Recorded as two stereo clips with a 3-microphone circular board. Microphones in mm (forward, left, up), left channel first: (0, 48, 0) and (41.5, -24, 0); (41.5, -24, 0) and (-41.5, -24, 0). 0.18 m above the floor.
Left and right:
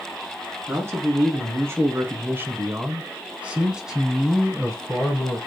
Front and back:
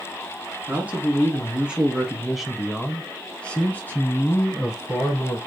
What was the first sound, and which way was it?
A man speaking, 110° right.